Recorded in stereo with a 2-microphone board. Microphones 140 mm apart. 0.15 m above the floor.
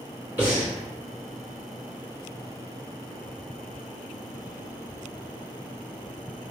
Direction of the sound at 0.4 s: 15° right (ahead or behind).